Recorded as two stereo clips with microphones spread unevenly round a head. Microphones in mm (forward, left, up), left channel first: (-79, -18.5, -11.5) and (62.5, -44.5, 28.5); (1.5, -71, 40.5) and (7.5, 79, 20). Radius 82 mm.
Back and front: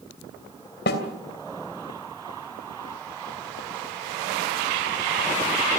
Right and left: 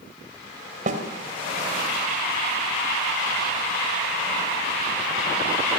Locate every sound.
0.9 s a snare drum: 135° left, 2.5 m